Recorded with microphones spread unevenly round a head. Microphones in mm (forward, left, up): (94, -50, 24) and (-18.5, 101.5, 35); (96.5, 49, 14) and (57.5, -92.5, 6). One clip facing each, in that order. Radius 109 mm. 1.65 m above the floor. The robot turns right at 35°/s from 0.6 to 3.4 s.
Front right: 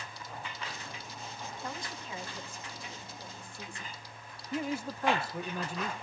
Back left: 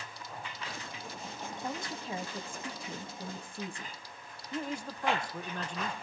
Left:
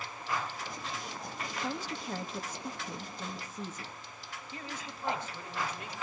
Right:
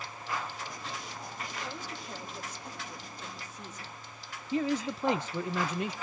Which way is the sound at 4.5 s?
140° right.